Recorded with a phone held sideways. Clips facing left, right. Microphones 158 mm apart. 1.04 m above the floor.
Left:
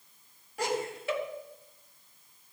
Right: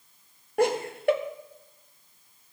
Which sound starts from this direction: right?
Laughter, at 0.6 s.